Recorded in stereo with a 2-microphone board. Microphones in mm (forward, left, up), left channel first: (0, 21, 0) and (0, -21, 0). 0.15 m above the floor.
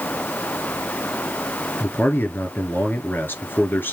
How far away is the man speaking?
About 3 m.